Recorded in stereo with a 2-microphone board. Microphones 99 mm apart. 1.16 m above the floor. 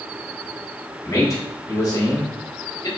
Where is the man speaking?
35° left (ahead or behind), 3.5 m.